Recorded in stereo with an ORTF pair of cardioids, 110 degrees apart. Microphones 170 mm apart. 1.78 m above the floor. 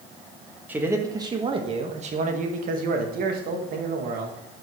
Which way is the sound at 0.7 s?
10° right.